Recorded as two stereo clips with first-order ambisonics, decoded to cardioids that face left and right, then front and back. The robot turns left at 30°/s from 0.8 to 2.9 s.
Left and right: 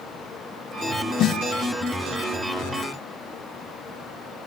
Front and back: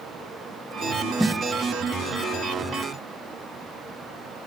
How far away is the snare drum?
About 0.5 m.